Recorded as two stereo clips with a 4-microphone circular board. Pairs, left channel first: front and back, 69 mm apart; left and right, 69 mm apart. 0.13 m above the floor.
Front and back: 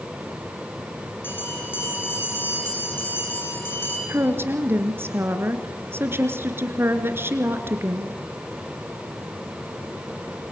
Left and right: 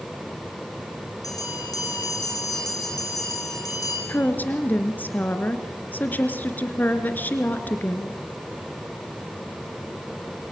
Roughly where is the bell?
Ahead left.